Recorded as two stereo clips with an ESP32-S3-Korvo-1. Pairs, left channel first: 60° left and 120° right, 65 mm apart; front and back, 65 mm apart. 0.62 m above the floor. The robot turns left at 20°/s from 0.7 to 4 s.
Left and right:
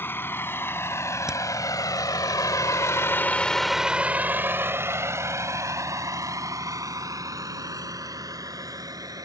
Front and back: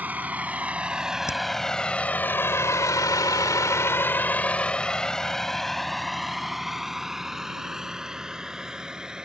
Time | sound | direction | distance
0.0 | a vehicle | 115° left | ?
1.3 | hammering | 40° right | ?